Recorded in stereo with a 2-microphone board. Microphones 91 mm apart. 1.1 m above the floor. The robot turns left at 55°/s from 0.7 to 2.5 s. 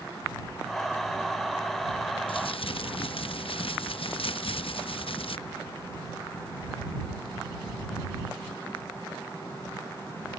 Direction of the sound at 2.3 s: 70° left (ahead or behind).